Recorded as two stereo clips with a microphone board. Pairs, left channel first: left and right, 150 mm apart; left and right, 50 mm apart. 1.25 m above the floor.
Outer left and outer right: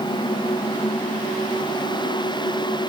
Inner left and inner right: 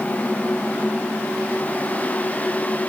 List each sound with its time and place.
Only background noise.